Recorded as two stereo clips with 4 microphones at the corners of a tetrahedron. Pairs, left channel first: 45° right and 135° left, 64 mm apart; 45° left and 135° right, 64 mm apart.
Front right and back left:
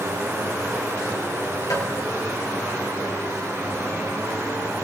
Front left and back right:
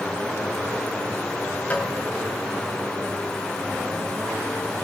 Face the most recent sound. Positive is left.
turn(degrees=-20)